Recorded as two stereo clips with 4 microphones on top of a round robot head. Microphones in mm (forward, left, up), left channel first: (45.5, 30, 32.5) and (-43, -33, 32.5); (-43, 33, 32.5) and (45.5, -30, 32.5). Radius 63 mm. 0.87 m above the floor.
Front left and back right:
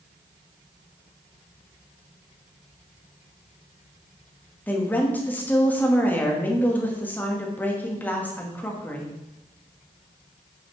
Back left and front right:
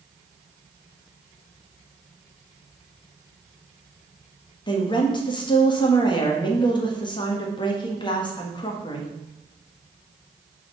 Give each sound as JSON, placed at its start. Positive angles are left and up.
{"t": 4.7, "sound": "a woman speaking", "azimuth_deg": 110, "distance_m": 1.6}